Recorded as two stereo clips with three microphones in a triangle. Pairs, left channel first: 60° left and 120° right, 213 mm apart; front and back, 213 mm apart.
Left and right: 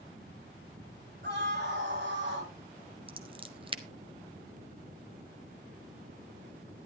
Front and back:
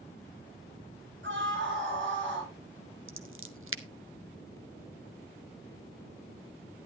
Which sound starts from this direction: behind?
Scissors, at 3.1 s.